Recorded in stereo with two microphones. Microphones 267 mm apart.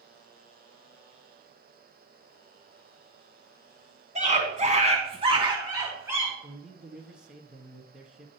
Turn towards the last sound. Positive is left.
turn(degrees=-5)  # may be behind; listen again after turning